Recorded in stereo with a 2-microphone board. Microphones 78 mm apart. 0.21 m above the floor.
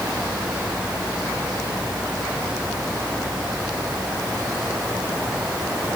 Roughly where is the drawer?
I don't hear a drawer.